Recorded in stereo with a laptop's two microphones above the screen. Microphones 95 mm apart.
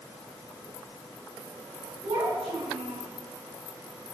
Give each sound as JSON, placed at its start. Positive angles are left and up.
{"t": 2.0, "sound": "a child speaking", "side_deg": -70, "distance_m": 5.0}